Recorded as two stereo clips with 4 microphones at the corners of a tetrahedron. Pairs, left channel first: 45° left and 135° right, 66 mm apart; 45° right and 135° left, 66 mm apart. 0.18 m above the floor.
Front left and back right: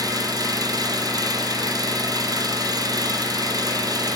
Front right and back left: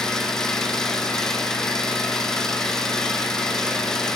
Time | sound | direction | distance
0.0 | an engine running | 125° right | 3 m